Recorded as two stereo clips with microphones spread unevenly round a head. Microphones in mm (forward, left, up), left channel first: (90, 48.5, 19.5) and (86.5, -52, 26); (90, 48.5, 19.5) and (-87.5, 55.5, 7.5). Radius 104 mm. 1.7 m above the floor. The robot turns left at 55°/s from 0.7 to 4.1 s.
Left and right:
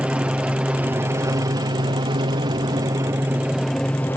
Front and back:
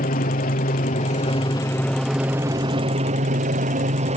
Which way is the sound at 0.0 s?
20° right.